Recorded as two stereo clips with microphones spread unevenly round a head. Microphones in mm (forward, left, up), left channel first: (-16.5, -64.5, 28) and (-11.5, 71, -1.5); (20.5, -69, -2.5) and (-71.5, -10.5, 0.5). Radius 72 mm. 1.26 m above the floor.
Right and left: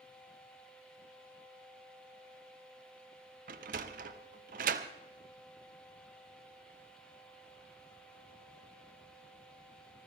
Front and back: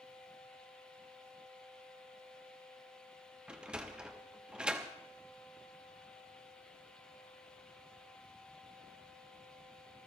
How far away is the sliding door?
About 0.8 m.